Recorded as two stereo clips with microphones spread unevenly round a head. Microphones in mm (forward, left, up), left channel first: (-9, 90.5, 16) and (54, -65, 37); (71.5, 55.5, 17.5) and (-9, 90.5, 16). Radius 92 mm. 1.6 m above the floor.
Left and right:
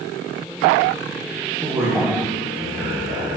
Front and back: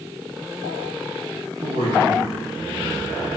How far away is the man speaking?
About 2.5 m.